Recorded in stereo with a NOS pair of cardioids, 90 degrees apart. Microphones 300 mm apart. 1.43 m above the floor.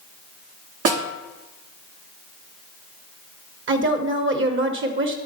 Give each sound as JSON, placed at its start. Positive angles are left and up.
{"t": 0.8, "sound": "a snare drum", "azimuth_deg": -55, "distance_m": 1.1}
{"t": 3.7, "sound": "a woman speaking", "azimuth_deg": -40, "distance_m": 1.2}